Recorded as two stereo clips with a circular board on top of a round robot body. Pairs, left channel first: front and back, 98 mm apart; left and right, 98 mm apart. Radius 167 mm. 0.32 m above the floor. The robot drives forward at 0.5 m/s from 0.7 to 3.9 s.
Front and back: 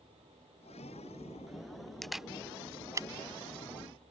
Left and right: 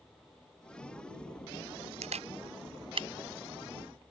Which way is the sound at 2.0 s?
85° right.